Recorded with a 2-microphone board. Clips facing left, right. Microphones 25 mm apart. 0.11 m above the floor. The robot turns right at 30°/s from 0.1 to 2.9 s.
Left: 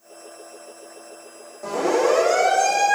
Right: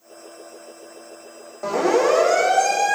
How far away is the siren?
About 8.5 m.